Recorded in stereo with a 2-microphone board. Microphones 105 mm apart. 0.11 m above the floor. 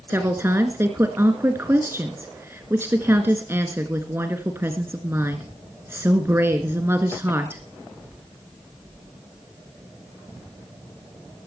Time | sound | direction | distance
0.1 | a woman speaking | 20° right (ahead or behind) | 1.7 m